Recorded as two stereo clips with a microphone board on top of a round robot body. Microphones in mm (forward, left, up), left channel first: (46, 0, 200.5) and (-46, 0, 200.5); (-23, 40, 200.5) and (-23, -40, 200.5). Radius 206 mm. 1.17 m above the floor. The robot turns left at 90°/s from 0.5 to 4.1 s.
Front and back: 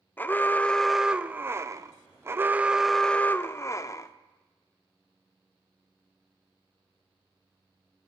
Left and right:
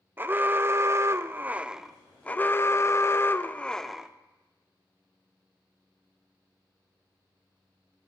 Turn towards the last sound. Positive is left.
turn(degrees=-15)